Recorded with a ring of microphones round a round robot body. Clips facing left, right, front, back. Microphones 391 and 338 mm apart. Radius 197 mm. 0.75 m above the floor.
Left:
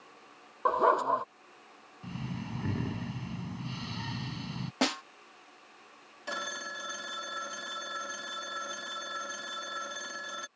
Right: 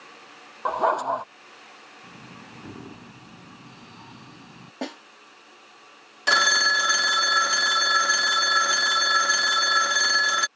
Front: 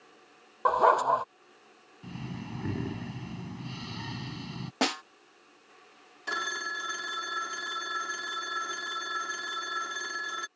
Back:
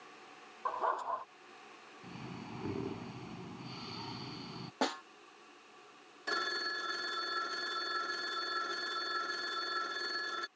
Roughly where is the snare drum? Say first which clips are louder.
Left 2 dB, front 5 dB; ahead left.